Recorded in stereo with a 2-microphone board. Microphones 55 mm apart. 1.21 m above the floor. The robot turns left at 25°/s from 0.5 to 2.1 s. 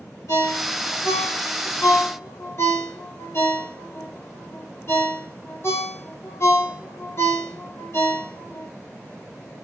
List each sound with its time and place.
0.3 s a ringtone: 80° left, 1.9 m; by 8.7 s 50° left (ahead or behind), 1.9 m